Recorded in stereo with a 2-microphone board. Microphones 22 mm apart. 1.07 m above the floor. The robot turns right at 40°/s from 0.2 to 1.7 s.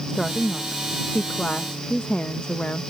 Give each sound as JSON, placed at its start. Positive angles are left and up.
{"t": 0.1, "sound": "a woman speaking", "azimuth_deg": 25}